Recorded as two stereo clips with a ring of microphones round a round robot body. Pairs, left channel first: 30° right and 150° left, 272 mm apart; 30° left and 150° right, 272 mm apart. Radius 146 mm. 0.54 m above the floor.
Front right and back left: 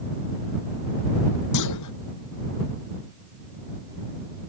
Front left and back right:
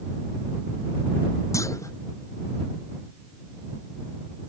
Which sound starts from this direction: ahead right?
A clunk, at 1.5 s.